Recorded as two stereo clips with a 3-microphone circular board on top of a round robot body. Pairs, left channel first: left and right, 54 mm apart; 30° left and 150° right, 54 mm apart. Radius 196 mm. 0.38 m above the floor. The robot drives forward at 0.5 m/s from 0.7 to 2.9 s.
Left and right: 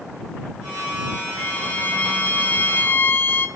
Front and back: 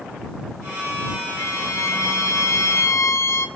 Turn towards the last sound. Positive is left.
turn(degrees=45)